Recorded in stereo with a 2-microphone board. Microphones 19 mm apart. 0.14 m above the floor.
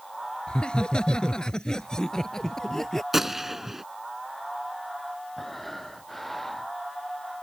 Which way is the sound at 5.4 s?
15° left (ahead or behind).